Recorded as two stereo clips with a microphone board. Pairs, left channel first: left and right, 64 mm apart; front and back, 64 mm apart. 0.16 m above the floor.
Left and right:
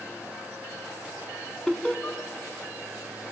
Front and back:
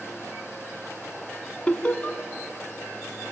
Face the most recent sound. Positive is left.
turn(degrees=45)